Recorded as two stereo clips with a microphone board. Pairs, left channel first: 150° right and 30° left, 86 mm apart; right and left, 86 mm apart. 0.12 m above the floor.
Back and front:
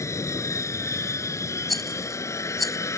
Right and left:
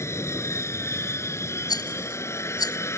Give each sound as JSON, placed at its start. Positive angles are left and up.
{"t": 0.0, "sound": "an aircraft", "azimuth_deg": -125}
{"t": 1.7, "sound": "a rattle", "azimuth_deg": -60}